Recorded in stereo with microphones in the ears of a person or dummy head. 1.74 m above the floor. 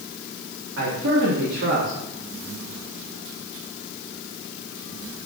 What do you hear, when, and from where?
0.8 s a man speaking: 65° right (ahead or behind), 3.5 m